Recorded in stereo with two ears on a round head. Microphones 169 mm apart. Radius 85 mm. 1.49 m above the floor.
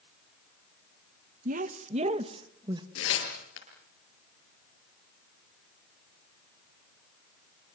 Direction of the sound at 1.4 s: 45° right (ahead or behind).